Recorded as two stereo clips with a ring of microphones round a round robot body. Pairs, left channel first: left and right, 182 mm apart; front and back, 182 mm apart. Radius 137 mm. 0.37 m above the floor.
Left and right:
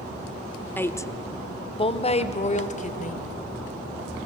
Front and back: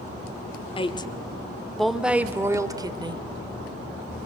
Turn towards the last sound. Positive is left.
turn(degrees=125)